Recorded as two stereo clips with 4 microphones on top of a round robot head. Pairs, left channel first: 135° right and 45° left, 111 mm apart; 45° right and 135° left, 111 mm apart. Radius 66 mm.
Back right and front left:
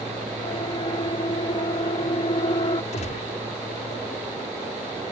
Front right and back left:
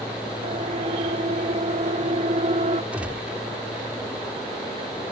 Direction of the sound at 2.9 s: 145° right.